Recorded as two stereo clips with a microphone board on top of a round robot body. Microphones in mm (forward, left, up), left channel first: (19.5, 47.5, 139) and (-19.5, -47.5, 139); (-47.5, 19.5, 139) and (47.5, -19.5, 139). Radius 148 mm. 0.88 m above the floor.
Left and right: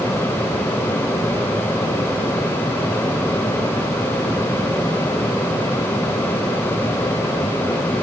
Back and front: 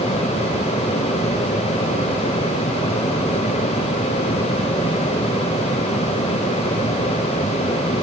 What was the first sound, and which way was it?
Only background noise.